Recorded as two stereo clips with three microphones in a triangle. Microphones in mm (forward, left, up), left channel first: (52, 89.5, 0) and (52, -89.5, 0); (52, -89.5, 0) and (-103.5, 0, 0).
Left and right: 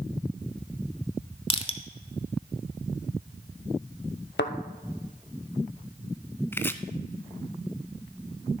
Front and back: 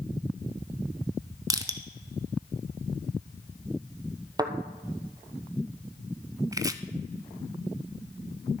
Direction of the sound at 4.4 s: 85° left.